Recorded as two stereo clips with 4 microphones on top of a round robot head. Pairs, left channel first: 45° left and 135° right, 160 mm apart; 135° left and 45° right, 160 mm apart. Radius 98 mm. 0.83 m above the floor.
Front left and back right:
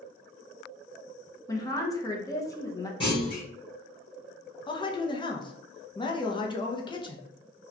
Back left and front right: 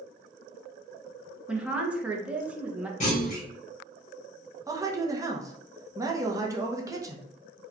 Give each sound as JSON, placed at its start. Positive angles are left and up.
{"t": 1.5, "sound": "a woman speaking", "azimuth_deg": 25, "distance_m": 0.8}
{"t": 3.0, "sound": "a clunk", "azimuth_deg": 100, "distance_m": 1.7}
{"t": 4.7, "sound": "a man speaking", "azimuth_deg": 10, "distance_m": 0.7}